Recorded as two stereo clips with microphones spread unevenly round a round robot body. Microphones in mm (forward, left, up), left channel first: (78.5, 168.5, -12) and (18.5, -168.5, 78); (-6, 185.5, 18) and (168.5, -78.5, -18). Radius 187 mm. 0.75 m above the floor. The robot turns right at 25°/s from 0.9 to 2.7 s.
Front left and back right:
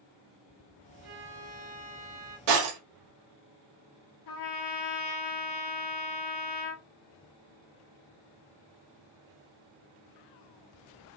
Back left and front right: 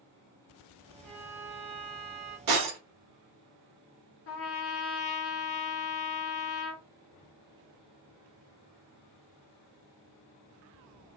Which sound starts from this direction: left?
A trumpet, at 4.3 s.